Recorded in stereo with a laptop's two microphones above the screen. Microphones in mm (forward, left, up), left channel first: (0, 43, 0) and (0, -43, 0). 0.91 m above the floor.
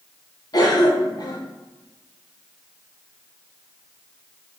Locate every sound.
0.5 s a cough: 50° left (ahead or behind), 0.7 m